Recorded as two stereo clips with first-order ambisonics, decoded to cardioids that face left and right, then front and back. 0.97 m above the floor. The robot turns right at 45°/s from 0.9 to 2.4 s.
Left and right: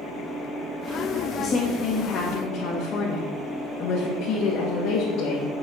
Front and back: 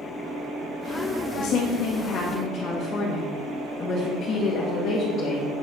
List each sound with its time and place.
1.4 s a woman speaking: 20° left, 1.6 m; by 5.5 s 65° left, 1.6 m